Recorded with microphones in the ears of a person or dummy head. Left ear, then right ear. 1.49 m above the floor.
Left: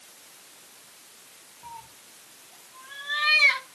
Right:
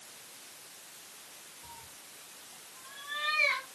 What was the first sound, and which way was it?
A cat meowing, 70° left (ahead or behind).